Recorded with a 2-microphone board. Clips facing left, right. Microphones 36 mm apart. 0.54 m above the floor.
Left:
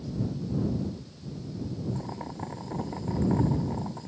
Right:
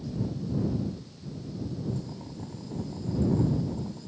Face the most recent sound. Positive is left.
turn(degrees=85)